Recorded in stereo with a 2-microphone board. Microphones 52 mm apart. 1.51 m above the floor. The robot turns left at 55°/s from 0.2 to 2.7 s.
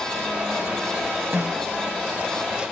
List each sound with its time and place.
1.3 s a snare drum: 40° right (ahead or behind), 1.8 m; by 1.7 s 25° right (ahead or behind), 1.8 m